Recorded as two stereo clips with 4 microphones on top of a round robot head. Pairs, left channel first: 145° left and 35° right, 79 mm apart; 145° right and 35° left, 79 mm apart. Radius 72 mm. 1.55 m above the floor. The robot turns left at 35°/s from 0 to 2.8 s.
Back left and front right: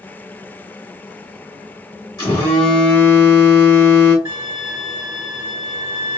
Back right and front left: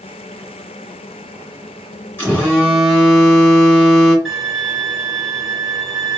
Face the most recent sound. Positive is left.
turn(degrees=-55)